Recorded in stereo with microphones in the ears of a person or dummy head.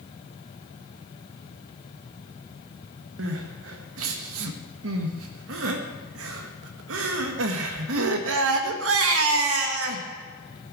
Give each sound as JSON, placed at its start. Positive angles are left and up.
{"t": 3.2, "sound": "crying", "side_deg": -80, "distance_m": 1.2}